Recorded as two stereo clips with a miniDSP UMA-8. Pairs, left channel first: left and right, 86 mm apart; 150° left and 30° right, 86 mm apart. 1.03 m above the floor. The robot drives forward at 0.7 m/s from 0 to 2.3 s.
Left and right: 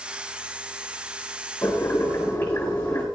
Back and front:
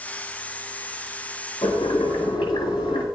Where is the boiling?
155° left, 7 m.